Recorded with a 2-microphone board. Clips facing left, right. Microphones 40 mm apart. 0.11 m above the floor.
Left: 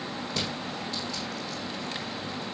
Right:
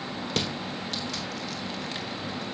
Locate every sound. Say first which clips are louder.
0.3 s crushing: right 3 dB; 70° right (ahead or behind), 2.5 m